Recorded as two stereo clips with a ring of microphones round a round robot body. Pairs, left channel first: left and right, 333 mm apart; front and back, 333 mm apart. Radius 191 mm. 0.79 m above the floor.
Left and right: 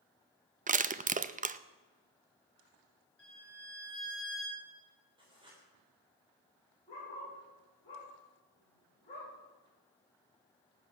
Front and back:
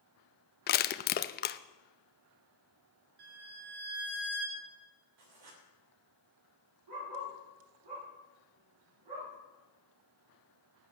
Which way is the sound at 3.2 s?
175° left.